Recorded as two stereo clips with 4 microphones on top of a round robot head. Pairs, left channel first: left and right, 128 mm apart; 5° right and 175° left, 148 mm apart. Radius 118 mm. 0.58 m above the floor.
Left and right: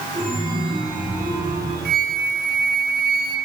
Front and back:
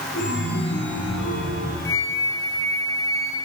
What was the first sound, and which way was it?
A chime, 15° right.